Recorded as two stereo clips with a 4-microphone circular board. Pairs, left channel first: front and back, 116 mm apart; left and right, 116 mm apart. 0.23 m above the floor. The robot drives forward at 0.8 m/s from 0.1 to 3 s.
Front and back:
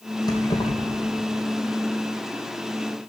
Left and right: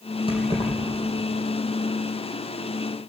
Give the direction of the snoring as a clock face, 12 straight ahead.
I don't hear snoring.